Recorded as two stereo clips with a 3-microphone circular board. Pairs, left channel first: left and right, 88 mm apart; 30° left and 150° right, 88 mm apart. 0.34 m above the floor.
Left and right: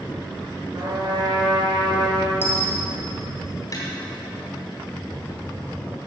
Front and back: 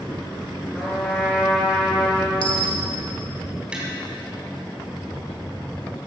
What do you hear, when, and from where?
0.7 s a trumpet: 50° right, 5 m
2.4 s a dropped coin: 25° left, 2.5 m
3.7 s tapping: 135° left, 3 m